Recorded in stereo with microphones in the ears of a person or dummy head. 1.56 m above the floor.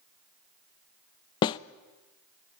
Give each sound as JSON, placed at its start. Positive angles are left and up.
{"t": 1.4, "sound": "a snare drum", "side_deg": 25, "distance_m": 0.5}